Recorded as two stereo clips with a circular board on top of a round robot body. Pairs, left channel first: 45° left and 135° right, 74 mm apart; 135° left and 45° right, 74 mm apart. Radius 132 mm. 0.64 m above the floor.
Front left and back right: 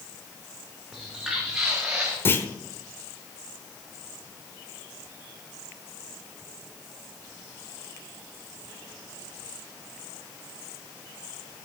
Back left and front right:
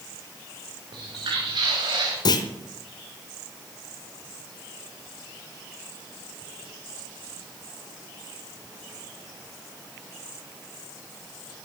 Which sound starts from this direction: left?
A clunk, at 2.2 s.